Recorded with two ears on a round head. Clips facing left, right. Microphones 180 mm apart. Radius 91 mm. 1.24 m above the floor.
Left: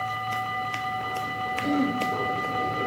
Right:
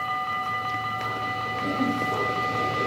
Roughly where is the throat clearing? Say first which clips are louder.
Left 2 dB; centre.